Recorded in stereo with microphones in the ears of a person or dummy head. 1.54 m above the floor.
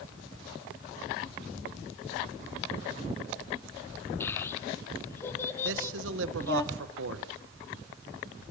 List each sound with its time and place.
4.2 s a child speaking: 15° left (ahead or behind), 1.8 m
5.6 s a man speaking: 80° right, 1.6 m